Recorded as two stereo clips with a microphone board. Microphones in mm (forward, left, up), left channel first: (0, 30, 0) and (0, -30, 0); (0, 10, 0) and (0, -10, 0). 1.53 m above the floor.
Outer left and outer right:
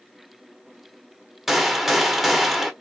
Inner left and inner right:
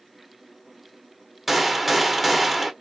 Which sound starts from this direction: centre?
A gunshot, at 1.5 s.